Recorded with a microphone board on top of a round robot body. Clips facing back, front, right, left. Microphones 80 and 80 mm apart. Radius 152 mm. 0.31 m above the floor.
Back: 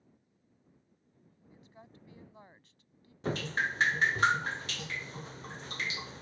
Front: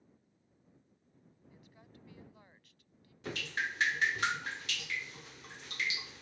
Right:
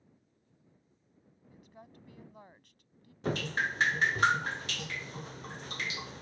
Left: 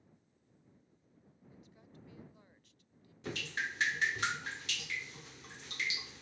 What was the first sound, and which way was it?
A woman speaking, 125° right.